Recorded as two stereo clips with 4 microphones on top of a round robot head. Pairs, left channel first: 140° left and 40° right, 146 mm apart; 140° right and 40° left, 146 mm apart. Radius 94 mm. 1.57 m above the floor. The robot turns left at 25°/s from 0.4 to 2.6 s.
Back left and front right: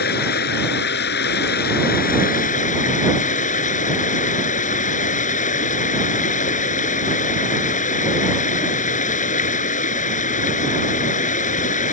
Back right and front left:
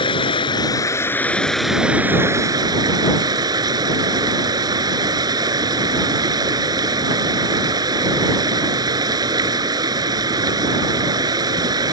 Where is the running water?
160° left; by 11.9 s 105° left.